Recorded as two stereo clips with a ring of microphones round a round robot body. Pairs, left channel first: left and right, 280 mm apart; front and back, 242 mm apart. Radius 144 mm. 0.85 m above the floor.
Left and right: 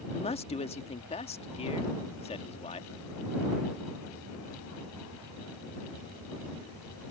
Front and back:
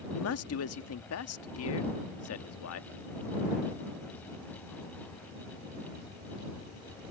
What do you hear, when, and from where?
0.1 s a man speaking: 20° left